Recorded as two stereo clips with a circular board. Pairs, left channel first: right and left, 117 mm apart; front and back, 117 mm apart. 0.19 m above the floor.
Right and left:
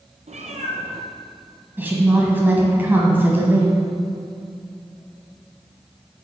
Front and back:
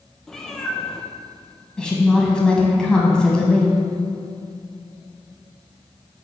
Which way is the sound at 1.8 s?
65° left.